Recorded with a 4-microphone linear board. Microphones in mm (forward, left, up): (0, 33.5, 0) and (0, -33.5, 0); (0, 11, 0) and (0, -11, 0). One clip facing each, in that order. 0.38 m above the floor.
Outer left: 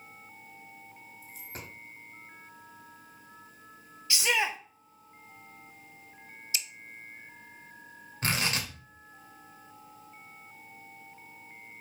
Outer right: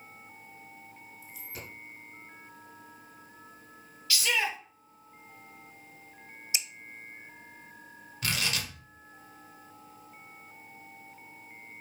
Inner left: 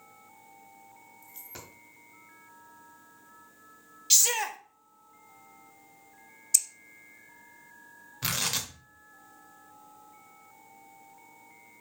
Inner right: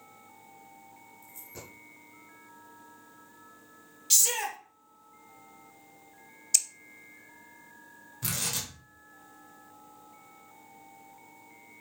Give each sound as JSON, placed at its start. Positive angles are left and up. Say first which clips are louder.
{"t": 1.2, "sound": "a dropped coin", "louder": "even, even", "side_deg": 45, "distance_m": 2.5}
{"t": 4.1, "sound": "a shout", "louder": "outer left 1 dB, inner left 2 dB", "side_deg": 25, "distance_m": 1.2}
{"t": 6.5, "sound": "scissors", "louder": "outer right 1 dB, even", "side_deg": -20, "distance_m": 0.5}
{"t": 8.2, "sound": "tearing paper", "louder": "outer left 2 dB, inner left 3 dB", "side_deg": 35, "distance_m": 1.5}